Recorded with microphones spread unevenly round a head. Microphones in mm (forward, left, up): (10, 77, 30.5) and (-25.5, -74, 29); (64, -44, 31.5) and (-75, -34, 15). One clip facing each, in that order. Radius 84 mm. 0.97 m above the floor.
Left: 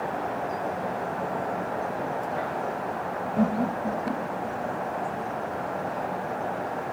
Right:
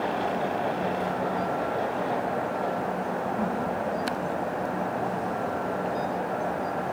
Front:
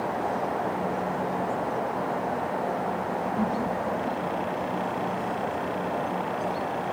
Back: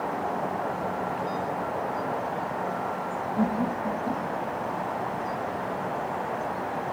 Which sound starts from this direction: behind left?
Laughter, at 3.4 s.